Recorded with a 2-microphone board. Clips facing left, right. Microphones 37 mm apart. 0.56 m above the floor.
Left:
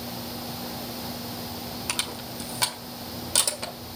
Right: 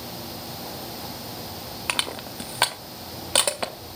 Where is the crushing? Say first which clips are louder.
Right 6 dB; 35° right (ahead or behind), 1.6 m.